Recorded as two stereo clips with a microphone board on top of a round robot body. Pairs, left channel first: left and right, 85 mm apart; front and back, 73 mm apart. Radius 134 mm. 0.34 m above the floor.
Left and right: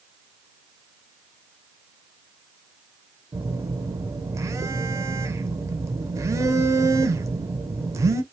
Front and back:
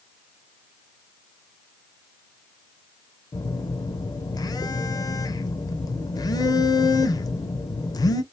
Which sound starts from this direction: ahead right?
A phone buzzing, at 3.3 s.